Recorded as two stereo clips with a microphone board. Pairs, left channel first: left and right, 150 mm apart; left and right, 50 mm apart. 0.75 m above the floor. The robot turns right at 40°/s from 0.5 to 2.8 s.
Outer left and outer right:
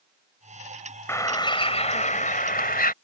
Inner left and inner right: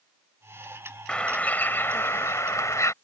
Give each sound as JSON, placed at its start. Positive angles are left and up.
{"t": 1.1, "sound": "a bird", "azimuth_deg": 15}